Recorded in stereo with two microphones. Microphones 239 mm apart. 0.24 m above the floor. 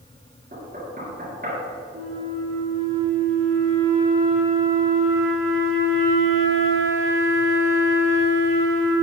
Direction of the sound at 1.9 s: 65° right (ahead or behind).